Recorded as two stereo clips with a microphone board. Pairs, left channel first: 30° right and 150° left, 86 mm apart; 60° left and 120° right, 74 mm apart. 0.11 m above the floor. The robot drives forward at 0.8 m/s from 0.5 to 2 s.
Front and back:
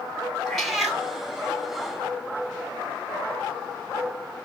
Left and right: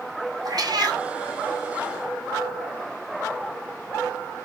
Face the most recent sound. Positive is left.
turn(degrees=-145)